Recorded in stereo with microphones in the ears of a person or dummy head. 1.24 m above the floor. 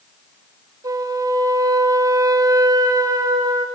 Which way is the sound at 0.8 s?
20° right (ahead or behind).